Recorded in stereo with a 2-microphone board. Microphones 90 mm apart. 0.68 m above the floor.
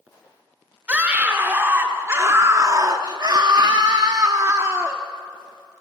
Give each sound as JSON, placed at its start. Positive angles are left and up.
{"t": 0.9, "sound": "a scream", "side_deg": -15, "distance_m": 1.8}